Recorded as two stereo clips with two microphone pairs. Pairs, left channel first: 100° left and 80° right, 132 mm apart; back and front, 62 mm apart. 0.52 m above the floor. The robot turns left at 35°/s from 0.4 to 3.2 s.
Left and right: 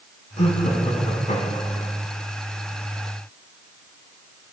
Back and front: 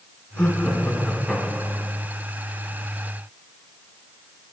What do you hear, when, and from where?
0.4 s laughter: 110° left, 4 m; by 1.9 s 60° left, 4 m